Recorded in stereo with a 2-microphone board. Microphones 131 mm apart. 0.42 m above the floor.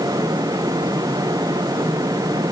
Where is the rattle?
No rattle in this recording.